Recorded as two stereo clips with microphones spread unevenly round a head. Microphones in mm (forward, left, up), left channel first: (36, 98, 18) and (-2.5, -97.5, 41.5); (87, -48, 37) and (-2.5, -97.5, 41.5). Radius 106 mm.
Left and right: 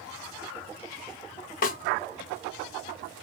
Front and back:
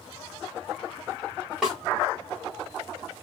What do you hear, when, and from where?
1.6 s a snare drum: 125° left, 0.5 m